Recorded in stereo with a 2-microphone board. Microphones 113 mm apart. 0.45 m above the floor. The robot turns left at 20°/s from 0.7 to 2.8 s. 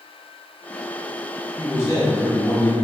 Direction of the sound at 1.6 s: 25° left (ahead or behind).